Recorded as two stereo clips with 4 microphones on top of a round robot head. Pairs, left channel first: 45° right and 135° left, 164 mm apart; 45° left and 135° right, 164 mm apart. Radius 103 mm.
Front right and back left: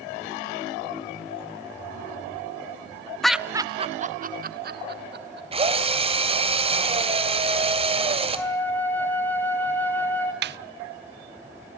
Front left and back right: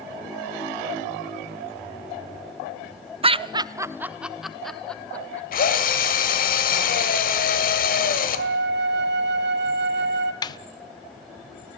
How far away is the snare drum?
About 0.5 m.